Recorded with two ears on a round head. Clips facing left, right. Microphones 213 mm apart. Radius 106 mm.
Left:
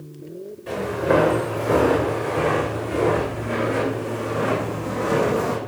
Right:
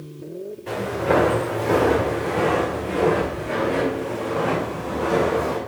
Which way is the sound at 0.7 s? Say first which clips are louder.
Left 1 dB; centre (ahead or behind).